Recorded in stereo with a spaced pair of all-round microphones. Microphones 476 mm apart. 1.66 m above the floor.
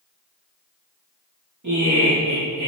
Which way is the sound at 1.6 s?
35° right (ahead or behind).